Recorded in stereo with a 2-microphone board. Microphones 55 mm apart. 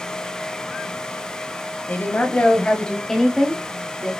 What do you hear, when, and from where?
1.9 s a woman speaking: 40° left (ahead or behind), 1.4 m; by 4.1 s 20° right (ahead or behind), 1.3 m